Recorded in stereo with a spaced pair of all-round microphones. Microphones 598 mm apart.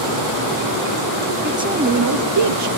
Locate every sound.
1.4 s a man speaking: centre (ahead or behind), 0.7 m; by 2.7 s 55° right (ahead or behind), 0.7 m